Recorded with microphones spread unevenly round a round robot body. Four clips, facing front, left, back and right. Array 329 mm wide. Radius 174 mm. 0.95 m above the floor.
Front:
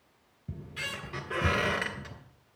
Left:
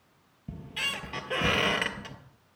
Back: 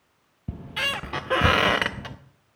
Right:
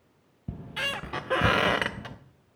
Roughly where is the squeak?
Behind.